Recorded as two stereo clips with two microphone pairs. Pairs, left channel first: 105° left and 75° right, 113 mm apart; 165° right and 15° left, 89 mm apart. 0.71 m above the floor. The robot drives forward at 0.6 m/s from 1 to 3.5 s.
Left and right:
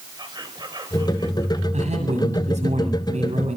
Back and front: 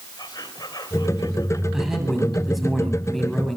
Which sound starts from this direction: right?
A man speaking, at 1.7 s.